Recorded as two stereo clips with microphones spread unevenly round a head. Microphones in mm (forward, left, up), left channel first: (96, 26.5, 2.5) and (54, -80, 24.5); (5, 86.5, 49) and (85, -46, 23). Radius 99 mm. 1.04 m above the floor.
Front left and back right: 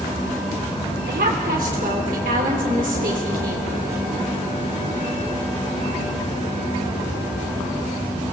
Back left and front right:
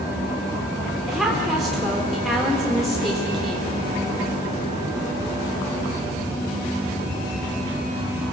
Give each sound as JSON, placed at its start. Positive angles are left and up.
{"t": 1.1, "sound": "a woman speaking", "azimuth_deg": -150, "distance_m": 3.5}